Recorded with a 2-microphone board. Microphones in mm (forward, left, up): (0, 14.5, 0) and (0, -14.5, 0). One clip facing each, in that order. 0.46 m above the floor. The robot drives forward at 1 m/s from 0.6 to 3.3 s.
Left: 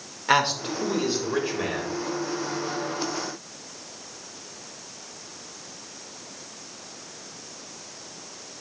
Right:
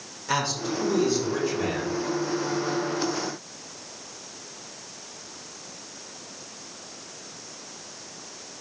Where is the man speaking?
40° left (ahead or behind), 1.4 m; by 1.9 s 25° left (ahead or behind), 2 m.